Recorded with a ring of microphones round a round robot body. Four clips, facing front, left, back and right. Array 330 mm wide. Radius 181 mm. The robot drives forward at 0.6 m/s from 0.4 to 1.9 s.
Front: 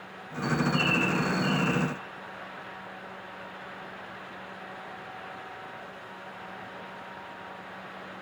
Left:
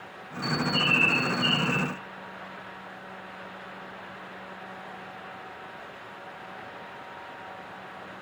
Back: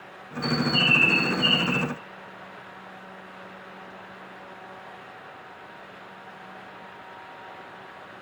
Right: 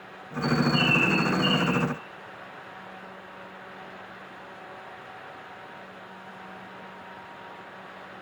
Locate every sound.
0.4 s a bird: straight behind, 0.7 m